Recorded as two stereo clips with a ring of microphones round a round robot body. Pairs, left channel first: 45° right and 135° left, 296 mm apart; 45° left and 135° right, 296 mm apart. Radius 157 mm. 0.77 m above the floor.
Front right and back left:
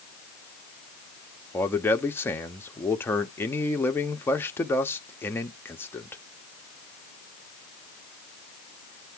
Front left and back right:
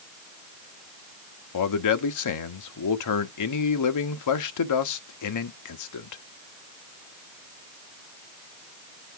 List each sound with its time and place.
1.5 s a man speaking: 40° left, 1.2 m